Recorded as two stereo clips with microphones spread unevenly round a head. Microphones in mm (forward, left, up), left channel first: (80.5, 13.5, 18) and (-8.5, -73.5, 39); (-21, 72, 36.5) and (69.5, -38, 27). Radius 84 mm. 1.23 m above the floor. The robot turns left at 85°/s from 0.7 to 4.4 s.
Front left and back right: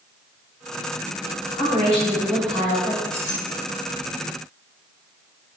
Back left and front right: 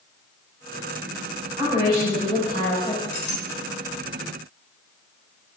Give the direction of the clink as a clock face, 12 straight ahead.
7 o'clock.